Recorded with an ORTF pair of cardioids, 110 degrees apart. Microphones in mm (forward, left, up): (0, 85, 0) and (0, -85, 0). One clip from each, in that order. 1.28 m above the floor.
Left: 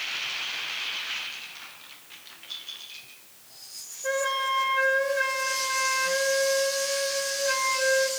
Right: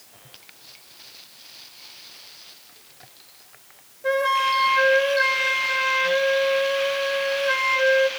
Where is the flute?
25° right, 0.8 m.